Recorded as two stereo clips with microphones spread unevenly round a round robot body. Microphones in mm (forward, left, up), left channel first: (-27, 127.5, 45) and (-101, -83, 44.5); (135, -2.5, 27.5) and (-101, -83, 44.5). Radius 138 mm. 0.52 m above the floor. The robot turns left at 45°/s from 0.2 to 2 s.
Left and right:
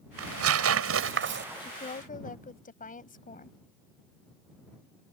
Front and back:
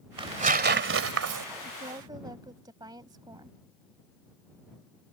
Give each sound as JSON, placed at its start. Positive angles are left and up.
{"t": 0.2, "sound": "tearing paper", "azimuth_deg": -90}
{"t": 1.6, "sound": "a woman speaking", "azimuth_deg": 140}